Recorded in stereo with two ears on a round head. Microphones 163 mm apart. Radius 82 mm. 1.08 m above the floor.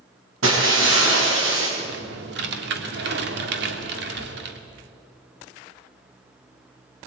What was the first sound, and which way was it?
Breaking glass, 80° right.